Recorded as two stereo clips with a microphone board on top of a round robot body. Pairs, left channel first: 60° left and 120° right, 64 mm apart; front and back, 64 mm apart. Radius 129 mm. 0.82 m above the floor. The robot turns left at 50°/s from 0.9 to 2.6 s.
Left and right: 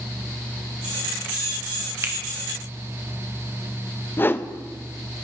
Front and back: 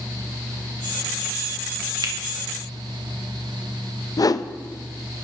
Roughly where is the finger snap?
Behind.